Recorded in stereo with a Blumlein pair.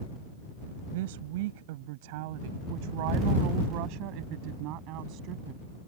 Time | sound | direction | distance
0.9 | a woman speaking | 55° right | ?